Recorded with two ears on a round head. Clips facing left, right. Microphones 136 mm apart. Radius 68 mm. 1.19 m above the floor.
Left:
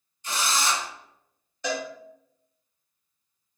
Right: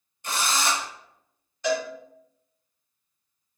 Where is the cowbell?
80° left, 1.6 m.